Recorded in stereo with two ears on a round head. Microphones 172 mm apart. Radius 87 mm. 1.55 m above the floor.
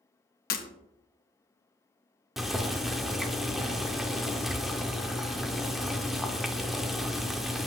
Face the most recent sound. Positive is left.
turn(degrees=0)  # may be behind; listen again after turning